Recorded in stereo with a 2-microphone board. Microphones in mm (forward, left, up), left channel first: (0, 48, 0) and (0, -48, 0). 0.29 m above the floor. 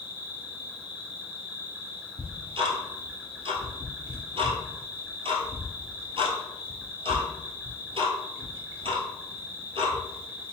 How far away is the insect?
About 1.4 m.